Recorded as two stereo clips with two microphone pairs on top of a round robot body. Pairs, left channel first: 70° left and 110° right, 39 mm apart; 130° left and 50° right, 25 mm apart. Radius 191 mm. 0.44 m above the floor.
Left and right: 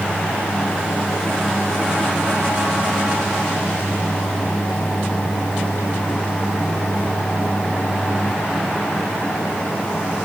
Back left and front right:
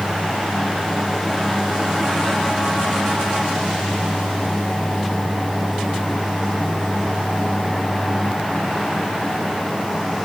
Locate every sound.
Only background noise.